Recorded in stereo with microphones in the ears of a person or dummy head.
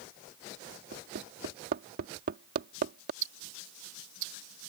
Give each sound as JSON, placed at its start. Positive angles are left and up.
{"t": 0.9, "sound": "hammering", "side_deg": -55}
{"t": 3.2, "sound": "ticking", "side_deg": -85}